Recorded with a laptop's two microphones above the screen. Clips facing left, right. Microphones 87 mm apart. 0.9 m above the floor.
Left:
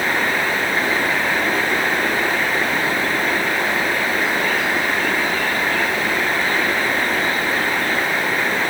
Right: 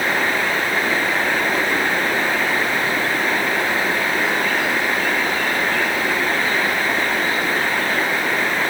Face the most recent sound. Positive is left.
No sound to turn to.